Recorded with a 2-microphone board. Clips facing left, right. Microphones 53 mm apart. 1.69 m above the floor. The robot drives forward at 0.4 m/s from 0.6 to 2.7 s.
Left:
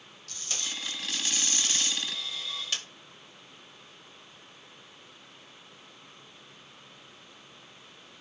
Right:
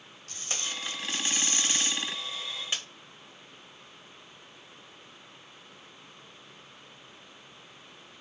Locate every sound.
0.3 s tape being pulled: 35° right (ahead or behind), 1.8 m; by 2.8 s 25° right (ahead or behind), 2.5 m